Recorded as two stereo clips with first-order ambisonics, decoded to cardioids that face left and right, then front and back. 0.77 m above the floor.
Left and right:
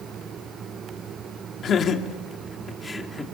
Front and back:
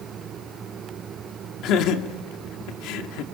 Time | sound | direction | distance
1.6 | laughter | 35° left | 2 m